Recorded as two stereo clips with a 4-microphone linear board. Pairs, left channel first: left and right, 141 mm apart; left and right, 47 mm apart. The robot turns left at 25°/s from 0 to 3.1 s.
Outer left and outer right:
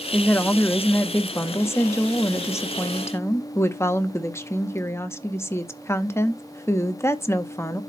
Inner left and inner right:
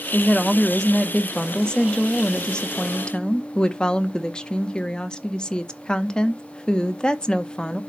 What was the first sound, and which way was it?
A woman speaking, 10° left (ahead or behind).